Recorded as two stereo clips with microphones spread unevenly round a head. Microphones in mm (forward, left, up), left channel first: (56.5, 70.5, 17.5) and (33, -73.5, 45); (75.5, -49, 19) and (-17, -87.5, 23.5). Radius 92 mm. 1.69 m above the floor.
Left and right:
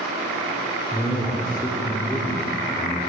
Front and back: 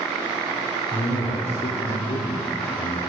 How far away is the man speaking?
About 0.8 m.